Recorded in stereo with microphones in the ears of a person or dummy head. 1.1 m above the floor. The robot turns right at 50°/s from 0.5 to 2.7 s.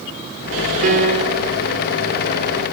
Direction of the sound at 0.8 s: 55° right.